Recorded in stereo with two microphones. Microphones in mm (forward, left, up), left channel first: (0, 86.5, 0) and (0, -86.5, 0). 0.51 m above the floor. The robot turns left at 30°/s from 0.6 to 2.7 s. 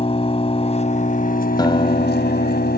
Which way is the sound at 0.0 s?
145° left.